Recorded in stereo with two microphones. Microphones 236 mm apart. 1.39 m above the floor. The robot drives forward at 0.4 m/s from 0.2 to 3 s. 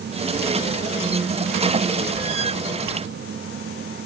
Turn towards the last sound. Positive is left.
No sound to turn to.